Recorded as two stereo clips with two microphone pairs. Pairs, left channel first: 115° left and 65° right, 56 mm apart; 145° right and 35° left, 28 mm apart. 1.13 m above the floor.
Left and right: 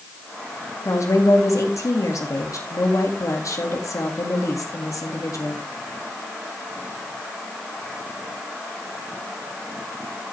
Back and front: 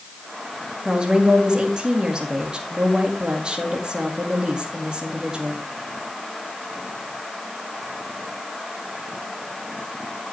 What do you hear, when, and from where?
0.8 s a woman speaking: 90° left, 2 m